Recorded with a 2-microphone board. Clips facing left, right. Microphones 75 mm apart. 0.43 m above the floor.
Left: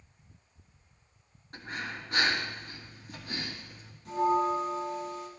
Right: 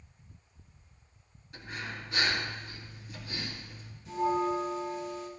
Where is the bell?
65° left (ahead or behind), 4.5 m.